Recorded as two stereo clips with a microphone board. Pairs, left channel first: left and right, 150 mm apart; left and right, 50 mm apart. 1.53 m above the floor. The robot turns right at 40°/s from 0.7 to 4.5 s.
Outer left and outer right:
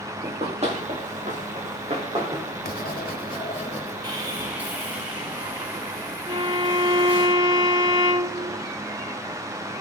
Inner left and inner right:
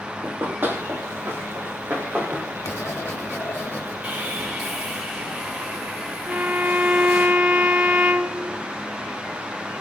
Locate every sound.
0.2 s running footsteps: 40° right (ahead or behind), 2.0 m; by 2.5 s 30° right (ahead or behind), 4 m
2.6 s writing: 85° left, 1.5 m; by 3.9 s 140° left, 1.5 m
4.0 s sawing: 25° right (ahead or behind), 6.5 m; by 7.3 s 10° right (ahead or behind), 6.5 m
6.3 s a violin: 30° right (ahead or behind), 1.2 m